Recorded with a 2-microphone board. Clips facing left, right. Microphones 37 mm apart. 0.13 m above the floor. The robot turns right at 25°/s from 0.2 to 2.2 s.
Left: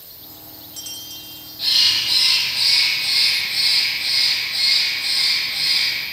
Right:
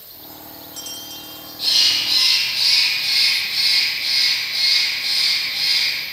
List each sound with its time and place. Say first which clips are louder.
1.6 s a bird: even; 5° left (ahead or behind), 6 m; by 6.0 s 10° right (ahead or behind), 6 m